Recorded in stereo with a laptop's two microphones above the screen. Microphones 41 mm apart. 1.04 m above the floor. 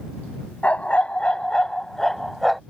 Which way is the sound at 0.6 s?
35° left (ahead or behind).